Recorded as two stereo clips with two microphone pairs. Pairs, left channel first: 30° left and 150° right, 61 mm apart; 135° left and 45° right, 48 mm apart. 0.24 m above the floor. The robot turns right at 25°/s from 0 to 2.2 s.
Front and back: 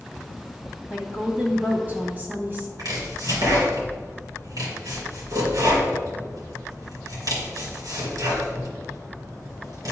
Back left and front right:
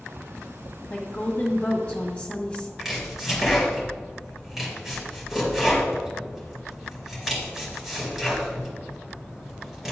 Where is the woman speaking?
145° left, 1.6 m; by 2.7 s 175° left, 1.6 m.